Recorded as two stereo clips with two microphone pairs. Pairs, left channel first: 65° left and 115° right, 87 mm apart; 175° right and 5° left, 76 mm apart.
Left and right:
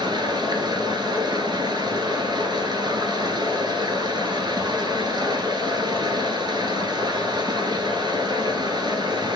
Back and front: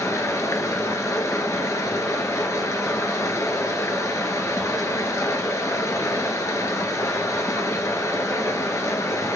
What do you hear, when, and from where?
0.0 s running water: 135° right, 1.1 m